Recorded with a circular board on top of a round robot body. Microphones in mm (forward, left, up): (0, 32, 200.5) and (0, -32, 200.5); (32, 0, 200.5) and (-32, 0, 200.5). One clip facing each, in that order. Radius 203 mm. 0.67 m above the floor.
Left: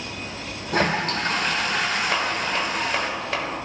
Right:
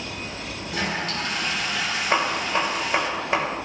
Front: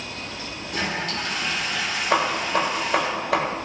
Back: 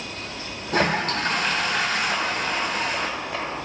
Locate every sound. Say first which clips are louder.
0.7 s a toilet flushing: left 6 dB, back 6 dB; 135° left, 0.7 m
2.1 s hammering: right 1 dB, front 3 dB; 15° right, 1.3 m